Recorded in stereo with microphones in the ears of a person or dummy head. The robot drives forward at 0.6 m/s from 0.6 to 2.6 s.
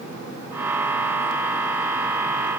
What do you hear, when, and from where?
Only background noise.